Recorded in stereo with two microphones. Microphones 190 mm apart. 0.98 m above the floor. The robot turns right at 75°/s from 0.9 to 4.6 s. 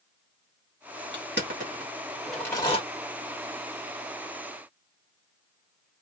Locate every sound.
1.1 s crushing: 70° right (ahead or behind), 1.2 m; by 2.8 s 35° left (ahead or behind), 1.2 m